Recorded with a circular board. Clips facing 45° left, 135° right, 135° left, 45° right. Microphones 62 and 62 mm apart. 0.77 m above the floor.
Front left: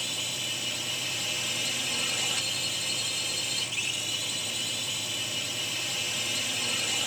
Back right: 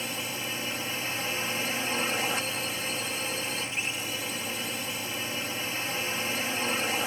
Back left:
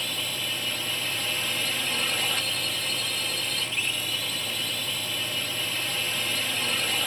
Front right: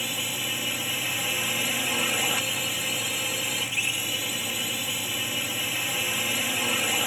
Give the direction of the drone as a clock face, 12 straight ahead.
4 o'clock.